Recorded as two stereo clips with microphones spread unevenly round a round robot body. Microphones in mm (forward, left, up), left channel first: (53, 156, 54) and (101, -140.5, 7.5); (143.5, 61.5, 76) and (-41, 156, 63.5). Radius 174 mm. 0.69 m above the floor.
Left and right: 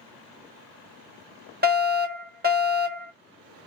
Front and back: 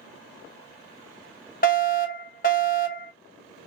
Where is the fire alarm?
55° right, 1.8 m.